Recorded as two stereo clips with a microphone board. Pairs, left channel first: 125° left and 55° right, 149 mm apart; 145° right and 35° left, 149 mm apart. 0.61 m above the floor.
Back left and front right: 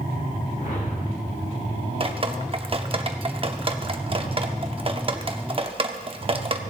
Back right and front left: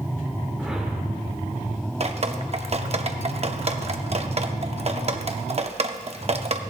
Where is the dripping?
5° right, 0.7 m.